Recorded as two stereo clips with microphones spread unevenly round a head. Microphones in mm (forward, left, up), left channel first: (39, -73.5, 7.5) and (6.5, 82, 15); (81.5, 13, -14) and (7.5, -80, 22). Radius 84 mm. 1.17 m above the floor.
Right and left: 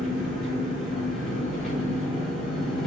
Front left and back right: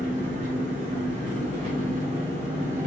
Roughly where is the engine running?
Behind.